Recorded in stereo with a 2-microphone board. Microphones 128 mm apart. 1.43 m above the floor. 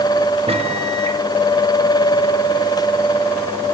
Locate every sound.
0.5 s a microwave: 50° right (ahead or behind), 1.5 m